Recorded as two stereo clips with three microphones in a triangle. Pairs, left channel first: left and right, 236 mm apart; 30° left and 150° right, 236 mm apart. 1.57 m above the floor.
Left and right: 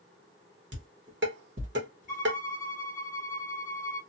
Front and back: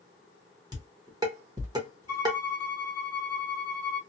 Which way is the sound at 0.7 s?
80° right.